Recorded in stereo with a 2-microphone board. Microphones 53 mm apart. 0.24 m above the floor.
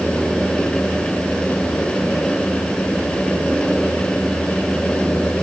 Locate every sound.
Only background noise.